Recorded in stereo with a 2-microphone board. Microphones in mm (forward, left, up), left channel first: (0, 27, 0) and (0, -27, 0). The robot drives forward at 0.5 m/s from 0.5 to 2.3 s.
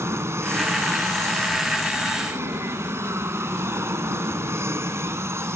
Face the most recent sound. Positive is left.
turn(degrees=-55)  # may be behind; listen again after turning